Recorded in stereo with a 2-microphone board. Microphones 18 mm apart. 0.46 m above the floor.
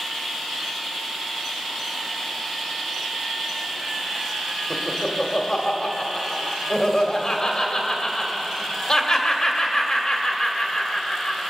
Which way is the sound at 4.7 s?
40° left (ahead or behind).